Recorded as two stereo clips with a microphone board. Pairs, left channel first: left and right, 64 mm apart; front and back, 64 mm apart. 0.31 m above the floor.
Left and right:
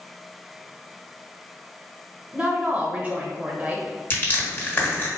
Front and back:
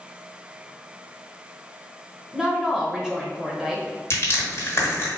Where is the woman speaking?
115° right, 0.9 m.